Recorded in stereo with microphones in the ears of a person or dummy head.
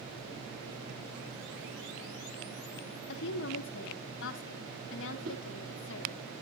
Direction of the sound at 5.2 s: 50° right (ahead or behind).